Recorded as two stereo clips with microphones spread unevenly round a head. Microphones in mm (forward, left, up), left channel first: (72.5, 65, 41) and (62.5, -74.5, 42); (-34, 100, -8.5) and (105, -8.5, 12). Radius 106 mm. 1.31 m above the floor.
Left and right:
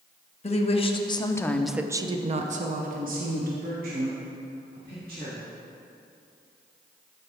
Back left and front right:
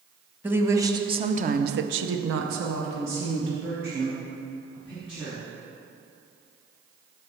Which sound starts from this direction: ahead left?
A woman speaking, at 0.4 s.